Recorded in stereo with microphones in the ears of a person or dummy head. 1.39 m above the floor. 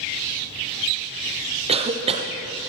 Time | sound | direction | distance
1.7 | a cough | 30° right (ahead or behind) | 0.7 m